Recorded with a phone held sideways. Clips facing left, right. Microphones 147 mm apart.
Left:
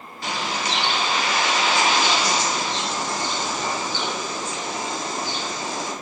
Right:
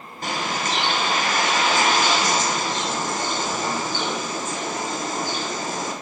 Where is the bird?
50° right (ahead or behind), 0.6 m.